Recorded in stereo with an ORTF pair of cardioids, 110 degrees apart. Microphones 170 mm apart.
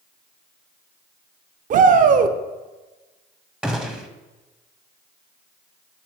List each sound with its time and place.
1.7 s a shout: 50° right, 0.8 m
3.6 s a gunshot: 5° right, 0.7 m